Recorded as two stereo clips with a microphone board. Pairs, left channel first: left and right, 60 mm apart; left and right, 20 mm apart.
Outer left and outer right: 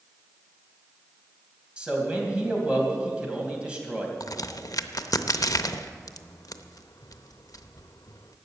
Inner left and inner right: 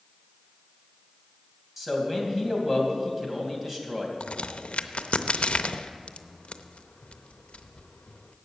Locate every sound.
1.8 s a man speaking: 20° right (ahead or behind), 2.5 m
4.2 s a crack: 85° left, 0.5 m